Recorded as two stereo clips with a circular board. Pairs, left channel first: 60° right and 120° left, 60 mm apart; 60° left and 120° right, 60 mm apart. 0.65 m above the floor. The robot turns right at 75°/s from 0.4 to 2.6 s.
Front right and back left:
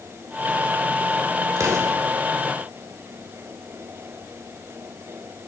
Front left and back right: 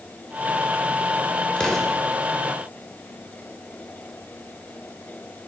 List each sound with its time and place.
1.6 s an explosion: 130° left, 1.7 m; by 2.0 s 160° left, 1.7 m